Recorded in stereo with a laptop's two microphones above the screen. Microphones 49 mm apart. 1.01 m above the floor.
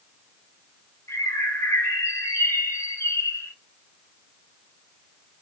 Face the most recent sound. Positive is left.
turn(degrees=70)  # may be behind; listen again after turning